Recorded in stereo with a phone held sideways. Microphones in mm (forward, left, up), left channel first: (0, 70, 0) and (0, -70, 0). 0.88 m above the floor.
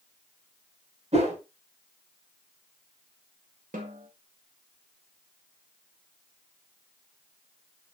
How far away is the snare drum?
About 1.9 m.